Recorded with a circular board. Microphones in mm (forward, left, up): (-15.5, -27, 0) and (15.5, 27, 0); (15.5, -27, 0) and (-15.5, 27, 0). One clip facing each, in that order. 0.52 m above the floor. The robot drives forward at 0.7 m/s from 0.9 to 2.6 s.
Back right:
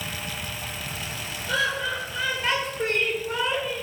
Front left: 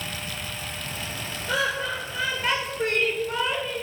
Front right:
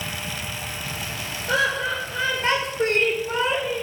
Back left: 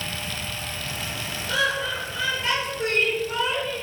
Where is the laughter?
15° right, 1.9 m; by 3.8 s 30° right, 1.3 m.